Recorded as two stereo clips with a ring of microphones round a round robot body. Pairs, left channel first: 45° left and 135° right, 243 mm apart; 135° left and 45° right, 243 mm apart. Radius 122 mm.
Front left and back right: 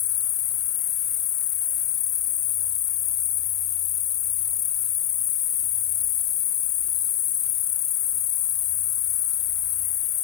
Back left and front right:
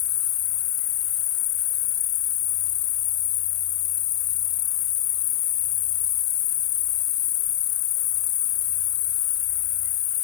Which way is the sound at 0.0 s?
100° left.